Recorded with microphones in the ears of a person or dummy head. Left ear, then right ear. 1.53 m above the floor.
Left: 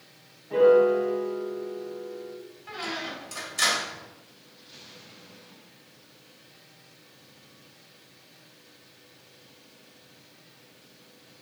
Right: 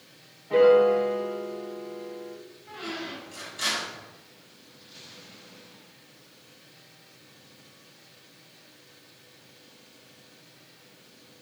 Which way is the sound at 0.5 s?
25° right (ahead or behind).